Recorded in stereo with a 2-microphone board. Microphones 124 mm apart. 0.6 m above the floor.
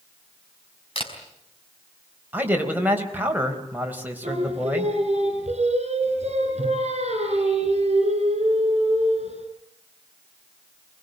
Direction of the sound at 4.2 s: 60° right (ahead or behind).